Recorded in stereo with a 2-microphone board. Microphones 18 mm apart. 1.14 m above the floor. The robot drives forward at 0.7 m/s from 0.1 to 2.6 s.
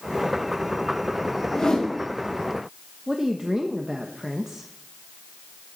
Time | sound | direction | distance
1.5 | a whoosh | 75° left (ahead or behind) | 6.5 m
3.1 | a woman speaking | 35° right (ahead or behind) | 1.1 m